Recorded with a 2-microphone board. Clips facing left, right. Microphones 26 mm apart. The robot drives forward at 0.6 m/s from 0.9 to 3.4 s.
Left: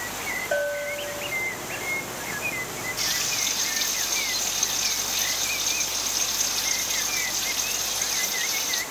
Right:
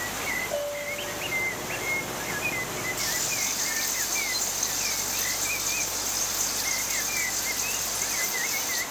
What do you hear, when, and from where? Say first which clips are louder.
0.5 s a bell: left 4 dB; 70° left (ahead or behind), 5 m
3.0 s frying: left 6 dB; 40° left (ahead or behind), 6 m